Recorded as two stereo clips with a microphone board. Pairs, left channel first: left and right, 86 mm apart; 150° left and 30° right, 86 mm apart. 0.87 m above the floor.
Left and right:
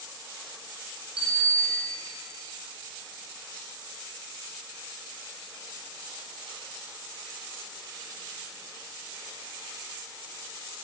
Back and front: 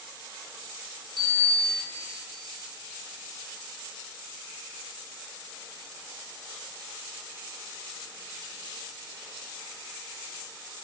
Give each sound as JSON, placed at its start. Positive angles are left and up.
{"t": 1.2, "sound": "a bicycle bell", "azimuth_deg": -65, "distance_m": 6.5}